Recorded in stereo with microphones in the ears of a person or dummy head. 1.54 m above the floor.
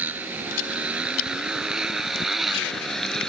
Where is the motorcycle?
10° right (ahead or behind); by 3.3 s 5° left (ahead or behind).